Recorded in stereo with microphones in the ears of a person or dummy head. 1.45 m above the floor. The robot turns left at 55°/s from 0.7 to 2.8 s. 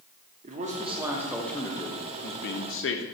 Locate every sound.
0.4 s a man speaking: 140° right, 0.7 m; by 3.0 s 100° left, 0.7 m